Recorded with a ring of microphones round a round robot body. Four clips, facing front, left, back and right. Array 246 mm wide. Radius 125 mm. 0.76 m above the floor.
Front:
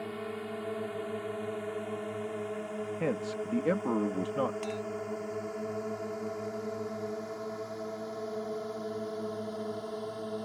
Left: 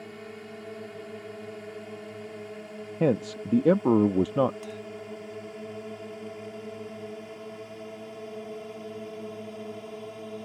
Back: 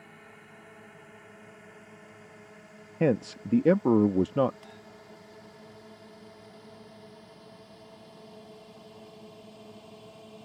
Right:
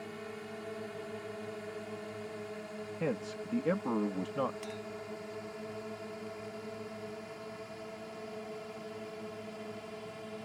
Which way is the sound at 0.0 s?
10° left.